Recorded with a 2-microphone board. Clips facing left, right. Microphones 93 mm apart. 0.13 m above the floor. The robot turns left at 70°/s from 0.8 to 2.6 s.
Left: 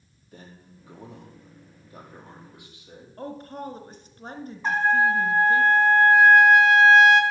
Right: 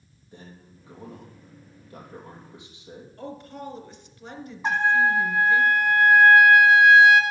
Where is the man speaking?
30° right, 3.5 m; by 3.1 s 155° right, 3.5 m.